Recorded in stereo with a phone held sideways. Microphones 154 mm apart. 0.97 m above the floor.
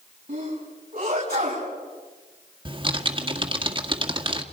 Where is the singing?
I don't hear singing.